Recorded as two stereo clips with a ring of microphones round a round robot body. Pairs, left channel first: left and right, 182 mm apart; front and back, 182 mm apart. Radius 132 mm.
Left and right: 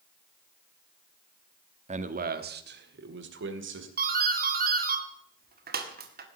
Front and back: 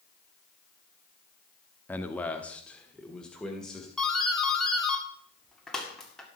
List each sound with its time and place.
1.9 s a man speaking: 75° right, 1.1 m; by 3.9 s 90° right, 2.5 m
4.0 s a doorbell: 85° right, 2 m